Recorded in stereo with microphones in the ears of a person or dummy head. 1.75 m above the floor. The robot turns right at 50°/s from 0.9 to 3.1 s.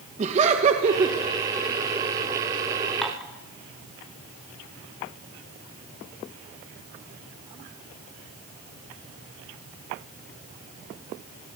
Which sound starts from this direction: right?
Laughter, at 0.2 s.